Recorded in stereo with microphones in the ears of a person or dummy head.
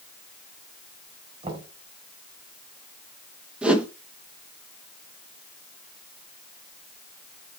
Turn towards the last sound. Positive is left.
turn(degrees=-5)  # may be behind; listen again after turning